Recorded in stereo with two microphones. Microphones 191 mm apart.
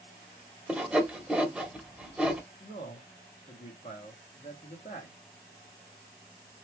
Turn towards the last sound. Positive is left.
turn(degrees=40)  # may be behind; listen again after turning